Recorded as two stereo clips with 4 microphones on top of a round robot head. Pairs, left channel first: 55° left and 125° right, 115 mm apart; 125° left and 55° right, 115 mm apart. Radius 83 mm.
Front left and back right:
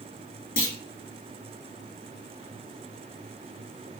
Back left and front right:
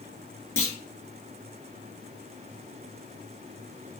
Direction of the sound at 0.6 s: 55° left.